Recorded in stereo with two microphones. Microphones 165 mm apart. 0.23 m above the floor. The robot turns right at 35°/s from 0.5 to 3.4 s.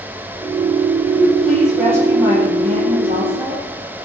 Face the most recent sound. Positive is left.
turn(degrees=-115)